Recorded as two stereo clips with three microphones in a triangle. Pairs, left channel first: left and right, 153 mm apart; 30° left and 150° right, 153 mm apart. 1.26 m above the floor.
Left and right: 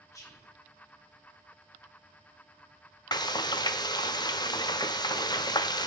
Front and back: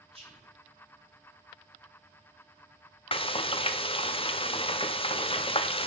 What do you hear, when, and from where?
0.1 s whispering: 160° left, 3 m
3.1 s frying: 45° left, 0.6 m